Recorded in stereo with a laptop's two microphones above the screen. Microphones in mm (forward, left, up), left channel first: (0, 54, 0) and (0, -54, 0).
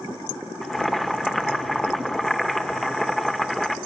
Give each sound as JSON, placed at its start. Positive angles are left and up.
{"t": 0.6, "sound": "boiling", "side_deg": 0, "distance_m": 1.1}